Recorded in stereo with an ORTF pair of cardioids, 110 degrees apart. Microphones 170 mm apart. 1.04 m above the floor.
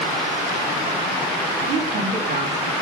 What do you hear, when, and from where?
1.7 s a woman speaking: 60° right, 2.5 m; by 2.7 s 50° right, 1.8 m